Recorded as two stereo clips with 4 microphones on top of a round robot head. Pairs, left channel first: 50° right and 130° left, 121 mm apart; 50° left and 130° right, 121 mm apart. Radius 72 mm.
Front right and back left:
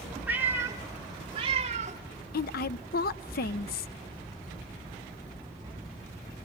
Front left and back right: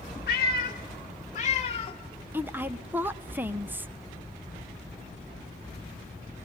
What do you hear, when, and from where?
0.3 s a cat meowing: 55° left, 1.5 m; by 2.0 s 100° left, 1.3 m
2.3 s a woman speaking: 55° right, 0.7 m